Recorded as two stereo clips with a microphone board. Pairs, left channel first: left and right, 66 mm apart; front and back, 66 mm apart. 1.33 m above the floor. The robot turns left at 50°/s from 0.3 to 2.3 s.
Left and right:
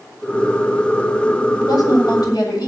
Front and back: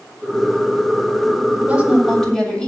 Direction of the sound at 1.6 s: 115° left.